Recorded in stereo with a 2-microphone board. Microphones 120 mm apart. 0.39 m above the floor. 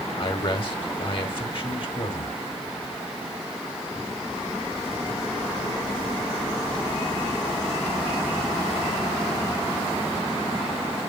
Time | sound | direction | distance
0.2 | a man speaking | 50° left (ahead or behind) | 1.7 m